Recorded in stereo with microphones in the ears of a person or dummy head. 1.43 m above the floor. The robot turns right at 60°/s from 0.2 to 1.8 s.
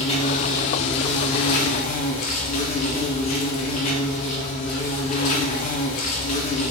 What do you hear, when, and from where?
0.0 s an insect: 40° left, 1.3 m; by 6.7 s 135° left, 1.3 m